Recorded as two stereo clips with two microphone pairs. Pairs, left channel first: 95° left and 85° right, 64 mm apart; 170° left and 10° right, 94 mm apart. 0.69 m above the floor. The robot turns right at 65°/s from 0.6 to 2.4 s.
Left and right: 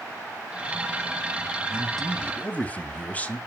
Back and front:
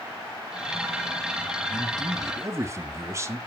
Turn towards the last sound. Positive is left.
turn(degrees=35)